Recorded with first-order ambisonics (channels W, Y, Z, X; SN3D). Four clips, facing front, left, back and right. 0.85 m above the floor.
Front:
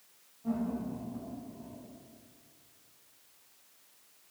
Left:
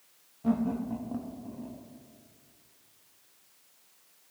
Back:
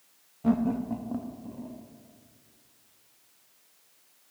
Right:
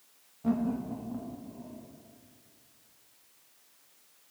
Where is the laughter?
Straight behind, 0.9 m; by 1.8 s 150° left, 1.4 m.